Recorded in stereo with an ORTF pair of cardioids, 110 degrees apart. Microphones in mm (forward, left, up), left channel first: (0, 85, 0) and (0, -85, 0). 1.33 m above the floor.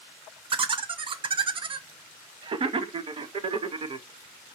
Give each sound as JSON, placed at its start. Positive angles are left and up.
{"t": 0.5, "sound": "laughter", "azimuth_deg": -35, "distance_m": 0.6}